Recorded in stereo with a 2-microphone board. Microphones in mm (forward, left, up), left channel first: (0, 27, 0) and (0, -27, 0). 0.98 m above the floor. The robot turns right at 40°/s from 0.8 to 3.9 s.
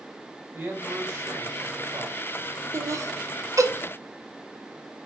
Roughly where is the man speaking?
Behind right.